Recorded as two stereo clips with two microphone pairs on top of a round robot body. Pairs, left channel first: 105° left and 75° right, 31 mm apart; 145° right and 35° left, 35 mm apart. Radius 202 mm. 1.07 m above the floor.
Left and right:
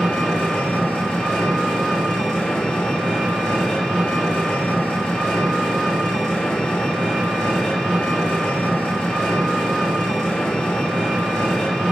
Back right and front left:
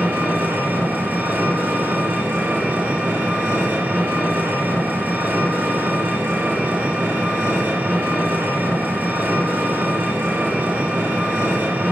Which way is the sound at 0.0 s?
50° left.